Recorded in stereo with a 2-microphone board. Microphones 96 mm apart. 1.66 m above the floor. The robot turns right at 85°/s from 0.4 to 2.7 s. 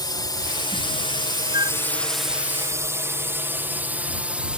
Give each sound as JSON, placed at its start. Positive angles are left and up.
{"t": 0.0, "sound": "a drone", "side_deg": 50}
{"t": 1.5, "sound": "a flute", "side_deg": -50}